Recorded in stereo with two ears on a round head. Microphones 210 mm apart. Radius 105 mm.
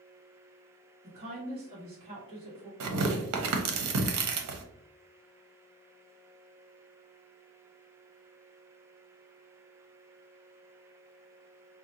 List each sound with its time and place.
1.0 s a woman speaking: 25° right (ahead or behind), 1.5 m
2.8 s tearing paper: 70° right (ahead or behind), 0.7 m